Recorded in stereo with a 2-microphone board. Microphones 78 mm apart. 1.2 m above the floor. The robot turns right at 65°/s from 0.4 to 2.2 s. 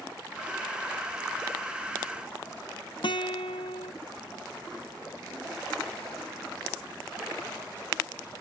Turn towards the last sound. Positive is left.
turn(degrees=65)  # may be behind; listen again after turning